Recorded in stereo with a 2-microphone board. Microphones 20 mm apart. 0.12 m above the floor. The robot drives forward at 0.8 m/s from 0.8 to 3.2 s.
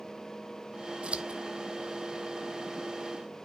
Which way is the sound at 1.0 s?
80° right.